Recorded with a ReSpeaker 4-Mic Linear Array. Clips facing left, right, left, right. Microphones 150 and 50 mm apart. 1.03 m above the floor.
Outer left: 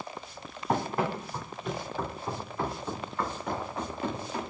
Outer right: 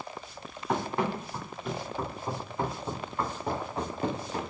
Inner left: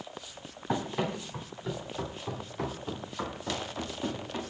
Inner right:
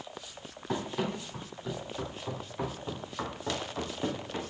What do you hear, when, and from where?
0.7 s running footsteps: 10° left (ahead or behind), 1.8 m; by 4.5 s 40° right (ahead or behind), 2.5 m